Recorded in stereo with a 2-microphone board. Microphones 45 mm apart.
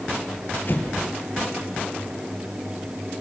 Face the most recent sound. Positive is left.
turn(degrees=50)  # may be behind; listen again after turning